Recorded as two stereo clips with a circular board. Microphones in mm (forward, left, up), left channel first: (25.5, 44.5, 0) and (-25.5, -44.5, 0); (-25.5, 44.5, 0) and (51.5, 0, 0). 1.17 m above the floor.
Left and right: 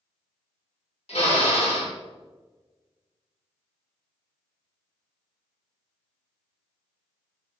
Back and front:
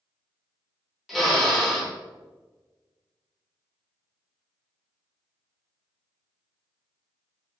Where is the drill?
60° left, 2 m.